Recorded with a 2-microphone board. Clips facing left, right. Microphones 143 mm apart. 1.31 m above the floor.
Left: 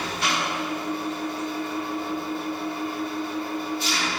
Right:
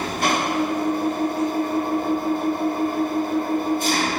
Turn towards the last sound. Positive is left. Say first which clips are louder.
# right 5 dB
turn(degrees=-50)  # may be behind; listen again after turning